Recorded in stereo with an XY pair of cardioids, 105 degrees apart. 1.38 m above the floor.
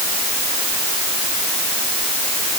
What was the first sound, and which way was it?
Only background noise.